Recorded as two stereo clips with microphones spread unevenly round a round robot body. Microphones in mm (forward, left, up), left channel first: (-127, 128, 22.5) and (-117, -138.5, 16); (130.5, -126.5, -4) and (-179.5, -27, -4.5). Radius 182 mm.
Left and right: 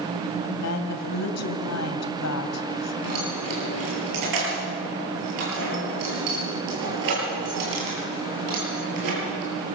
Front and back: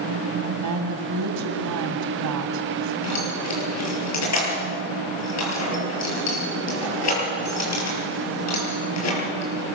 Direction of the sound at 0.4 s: 115° left.